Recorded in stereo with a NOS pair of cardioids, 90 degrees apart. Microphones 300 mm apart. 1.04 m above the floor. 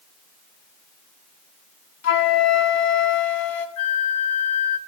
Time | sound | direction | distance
2.0 | a flute | 60° left | 1.4 m
3.8 | a flute | 60° left | 1.4 m